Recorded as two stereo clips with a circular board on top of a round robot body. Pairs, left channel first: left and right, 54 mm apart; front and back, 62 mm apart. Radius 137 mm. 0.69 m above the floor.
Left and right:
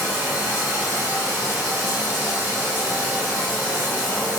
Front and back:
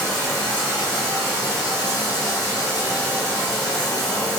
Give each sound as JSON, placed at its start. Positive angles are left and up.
{"t": 0.0, "sound": "running water", "azimuth_deg": -35, "distance_m": 3.5}